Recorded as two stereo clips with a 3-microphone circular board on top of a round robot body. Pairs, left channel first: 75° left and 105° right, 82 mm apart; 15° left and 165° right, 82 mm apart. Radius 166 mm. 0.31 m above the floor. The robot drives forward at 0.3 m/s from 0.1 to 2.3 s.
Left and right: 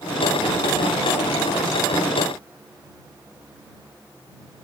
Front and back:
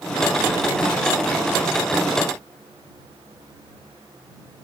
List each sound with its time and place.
Only background noise.